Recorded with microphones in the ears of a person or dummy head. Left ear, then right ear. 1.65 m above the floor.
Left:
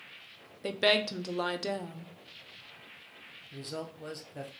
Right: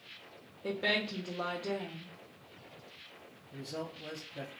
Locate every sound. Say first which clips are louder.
0.6 s a woman speaking: left 5 dB; 80° left, 0.7 m
3.5 s a man speaking: left 1 dB; 70° left (ahead or behind), 1.1 m